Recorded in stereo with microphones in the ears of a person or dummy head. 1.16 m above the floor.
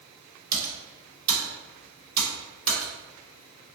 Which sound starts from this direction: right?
Typing on a keyboard, at 0.5 s.